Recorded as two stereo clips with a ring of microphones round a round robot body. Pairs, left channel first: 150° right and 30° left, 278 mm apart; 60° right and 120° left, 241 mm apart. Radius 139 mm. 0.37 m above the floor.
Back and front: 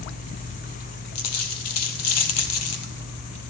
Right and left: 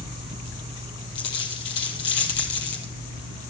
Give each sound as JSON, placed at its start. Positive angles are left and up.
{"t": 1.1, "sound": "a dropped coin", "azimuth_deg": -115, "distance_m": 2.5}